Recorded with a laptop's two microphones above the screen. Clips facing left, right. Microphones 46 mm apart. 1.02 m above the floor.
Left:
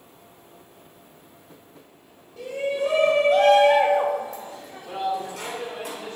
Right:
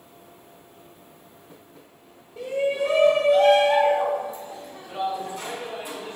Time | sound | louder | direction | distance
2.4 | a shout | right 2 dB | 20° right (ahead or behind) | 1.4 m